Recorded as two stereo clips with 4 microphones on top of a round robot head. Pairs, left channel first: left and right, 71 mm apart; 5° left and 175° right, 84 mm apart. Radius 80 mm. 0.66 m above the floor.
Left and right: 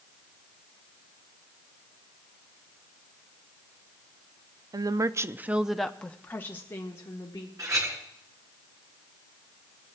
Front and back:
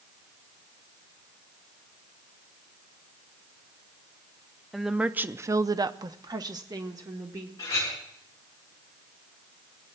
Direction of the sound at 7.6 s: 50° right.